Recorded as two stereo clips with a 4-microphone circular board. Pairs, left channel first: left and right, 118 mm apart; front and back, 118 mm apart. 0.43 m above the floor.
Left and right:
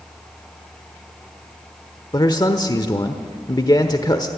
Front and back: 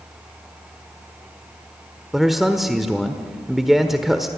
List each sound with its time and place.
2.1 s a man speaking: 90° left, 1.2 m